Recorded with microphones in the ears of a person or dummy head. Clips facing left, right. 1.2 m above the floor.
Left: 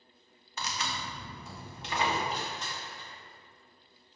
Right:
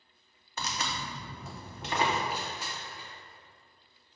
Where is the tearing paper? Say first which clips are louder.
Right 1 dB; 40° right (ahead or behind), 1.1 m.